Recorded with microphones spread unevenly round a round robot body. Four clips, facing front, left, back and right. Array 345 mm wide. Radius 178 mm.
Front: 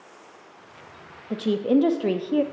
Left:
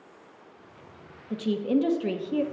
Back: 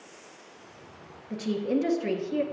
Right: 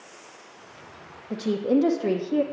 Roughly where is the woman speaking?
Ahead right.